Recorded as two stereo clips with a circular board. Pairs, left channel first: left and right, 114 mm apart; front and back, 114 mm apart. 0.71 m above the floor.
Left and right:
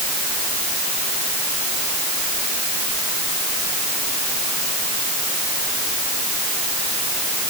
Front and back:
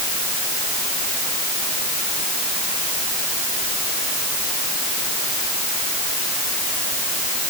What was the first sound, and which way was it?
Only background noise.